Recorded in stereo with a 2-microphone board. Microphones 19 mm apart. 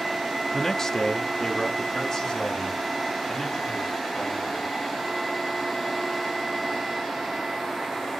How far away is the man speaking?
About 0.5 m.